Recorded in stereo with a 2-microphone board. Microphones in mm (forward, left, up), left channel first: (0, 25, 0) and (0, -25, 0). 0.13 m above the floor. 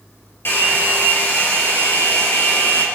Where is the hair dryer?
50° left (ahead or behind), 3 m.